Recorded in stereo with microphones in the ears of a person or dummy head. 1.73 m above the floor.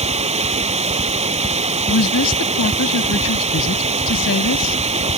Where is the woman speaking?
80° left.